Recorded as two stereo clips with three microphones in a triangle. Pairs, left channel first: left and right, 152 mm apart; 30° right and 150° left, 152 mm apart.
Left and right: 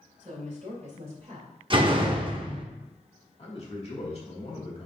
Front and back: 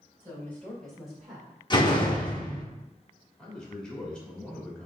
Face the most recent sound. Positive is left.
turn(degrees=55)